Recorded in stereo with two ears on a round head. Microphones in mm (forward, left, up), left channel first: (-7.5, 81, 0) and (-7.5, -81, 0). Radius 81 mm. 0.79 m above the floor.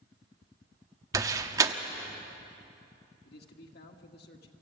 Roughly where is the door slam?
Centre.